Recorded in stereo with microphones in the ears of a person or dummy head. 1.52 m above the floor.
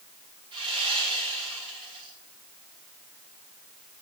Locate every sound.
0.5 s sawing: 30° right (ahead or behind), 8 m